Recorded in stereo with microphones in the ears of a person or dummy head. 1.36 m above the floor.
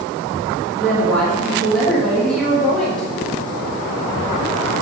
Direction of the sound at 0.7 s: Centre (ahead or behind).